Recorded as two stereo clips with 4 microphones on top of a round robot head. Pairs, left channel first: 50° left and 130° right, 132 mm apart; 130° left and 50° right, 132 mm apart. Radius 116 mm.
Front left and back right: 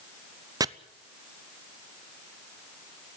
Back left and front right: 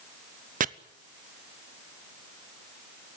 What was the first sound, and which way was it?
Chopping, 65° right.